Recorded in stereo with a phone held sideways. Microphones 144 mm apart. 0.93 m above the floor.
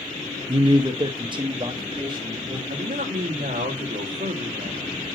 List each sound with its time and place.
0.5 s a man speaking: 35° right (ahead or behind), 0.7 m; by 2.6 s 30° right (ahead or behind), 2 m
2.7 s a man speaking: 70° right (ahead or behind), 1.7 m